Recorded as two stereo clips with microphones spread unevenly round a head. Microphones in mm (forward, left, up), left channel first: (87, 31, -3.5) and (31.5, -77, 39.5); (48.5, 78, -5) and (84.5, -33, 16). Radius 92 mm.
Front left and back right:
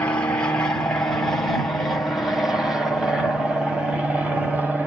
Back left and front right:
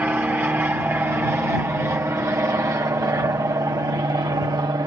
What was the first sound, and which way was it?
An aircraft, 5° left.